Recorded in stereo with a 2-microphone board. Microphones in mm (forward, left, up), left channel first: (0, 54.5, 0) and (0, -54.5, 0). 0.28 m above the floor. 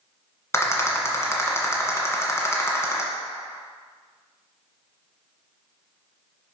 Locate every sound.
0.5 s a rattle: 25° left (ahead or behind), 1.6 m